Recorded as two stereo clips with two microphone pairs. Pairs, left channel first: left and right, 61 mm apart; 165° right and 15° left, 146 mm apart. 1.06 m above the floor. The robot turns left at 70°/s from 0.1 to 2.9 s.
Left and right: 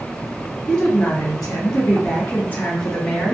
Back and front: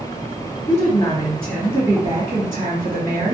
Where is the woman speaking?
160° left, 1.5 m; by 3.4 s 5° left, 1.5 m.